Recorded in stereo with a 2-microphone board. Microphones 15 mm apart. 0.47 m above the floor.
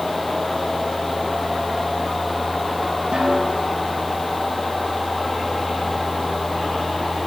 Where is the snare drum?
70° right (ahead or behind), 7.5 m.